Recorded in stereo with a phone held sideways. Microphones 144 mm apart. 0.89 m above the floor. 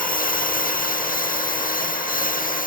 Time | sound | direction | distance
0.0 | a lawn mower | 75° left (ahead or behind) | ?